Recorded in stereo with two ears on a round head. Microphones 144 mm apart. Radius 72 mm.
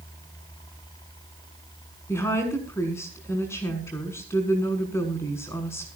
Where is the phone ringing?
I don't hear a phone ringing.